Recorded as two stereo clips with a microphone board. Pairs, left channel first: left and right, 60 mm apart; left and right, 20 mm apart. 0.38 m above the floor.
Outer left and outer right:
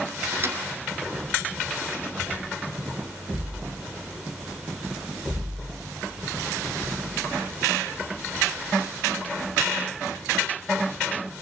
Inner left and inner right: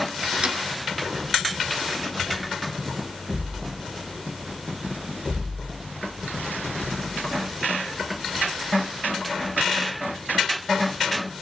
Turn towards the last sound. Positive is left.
turn(degrees=-45)  # may be behind; listen again after turning